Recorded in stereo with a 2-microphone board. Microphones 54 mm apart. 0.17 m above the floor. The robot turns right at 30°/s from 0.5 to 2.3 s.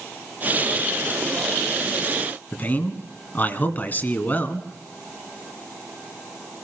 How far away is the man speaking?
About 1.6 m.